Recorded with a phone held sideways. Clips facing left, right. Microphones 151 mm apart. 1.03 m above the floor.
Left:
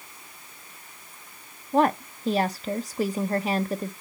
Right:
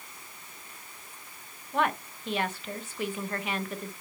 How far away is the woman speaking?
About 0.6 m.